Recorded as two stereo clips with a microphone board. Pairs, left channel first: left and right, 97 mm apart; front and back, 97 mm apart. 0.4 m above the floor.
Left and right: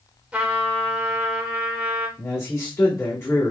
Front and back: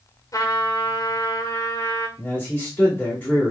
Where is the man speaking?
50° left, 1.6 m.